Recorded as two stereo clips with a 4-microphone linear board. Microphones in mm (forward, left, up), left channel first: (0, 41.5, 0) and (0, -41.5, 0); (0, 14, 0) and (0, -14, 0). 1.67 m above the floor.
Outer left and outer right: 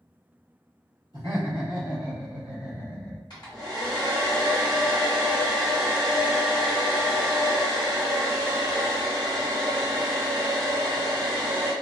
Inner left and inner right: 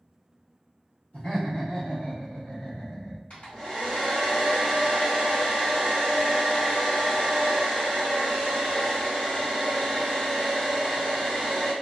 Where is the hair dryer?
60° left (ahead or behind), 1.9 m.